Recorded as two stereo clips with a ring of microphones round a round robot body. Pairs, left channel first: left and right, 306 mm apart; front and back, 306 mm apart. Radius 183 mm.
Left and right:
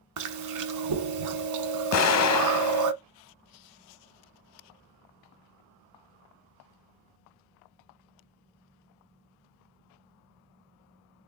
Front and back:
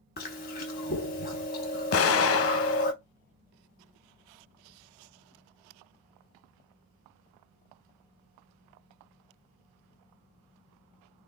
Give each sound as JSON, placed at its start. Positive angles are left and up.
{"t": 0.2, "sound": "chewing", "azimuth_deg": -65, "distance_m": 0.7}
{"t": 1.9, "sound": "an explosion", "azimuth_deg": 50, "distance_m": 0.7}